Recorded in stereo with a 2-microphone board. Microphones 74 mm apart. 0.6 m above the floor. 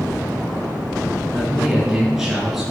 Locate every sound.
1.3 s a man speaking: 5° right (ahead or behind), 7.5 m